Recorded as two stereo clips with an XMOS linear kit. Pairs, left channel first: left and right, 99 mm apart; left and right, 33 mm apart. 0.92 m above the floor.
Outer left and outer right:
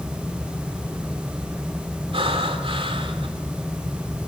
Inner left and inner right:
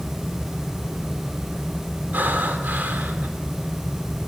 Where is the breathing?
70° right (ahead or behind), 3.5 m.